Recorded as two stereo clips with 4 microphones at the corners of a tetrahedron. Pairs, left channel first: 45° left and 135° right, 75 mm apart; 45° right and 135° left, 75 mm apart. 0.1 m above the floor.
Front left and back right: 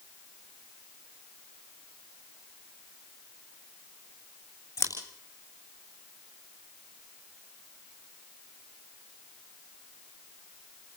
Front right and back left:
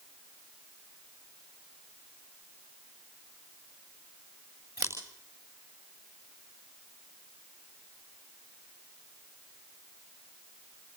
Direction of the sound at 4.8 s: 95° left.